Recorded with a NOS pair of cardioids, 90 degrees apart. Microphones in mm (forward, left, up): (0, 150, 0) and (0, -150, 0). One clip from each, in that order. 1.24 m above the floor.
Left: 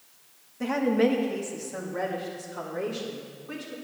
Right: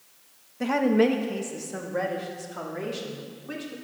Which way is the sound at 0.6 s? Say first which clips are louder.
Right 2 dB; 15° right.